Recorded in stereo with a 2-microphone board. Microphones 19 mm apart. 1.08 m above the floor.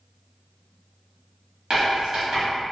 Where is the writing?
35° right (ahead or behind), 1.1 m.